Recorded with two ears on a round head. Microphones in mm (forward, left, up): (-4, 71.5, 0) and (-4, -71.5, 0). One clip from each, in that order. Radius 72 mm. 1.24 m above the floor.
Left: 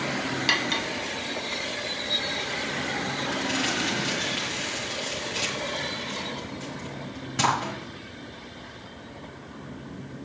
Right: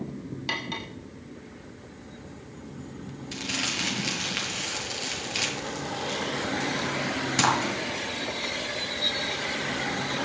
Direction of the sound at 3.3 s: 75° right (ahead or behind).